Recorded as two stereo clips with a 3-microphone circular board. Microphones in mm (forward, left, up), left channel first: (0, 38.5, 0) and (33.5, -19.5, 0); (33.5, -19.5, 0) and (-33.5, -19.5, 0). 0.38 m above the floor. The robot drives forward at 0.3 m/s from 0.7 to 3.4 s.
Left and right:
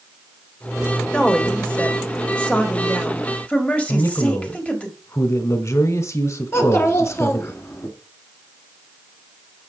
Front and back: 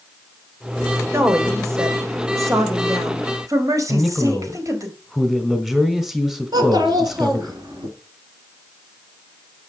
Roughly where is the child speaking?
Behind.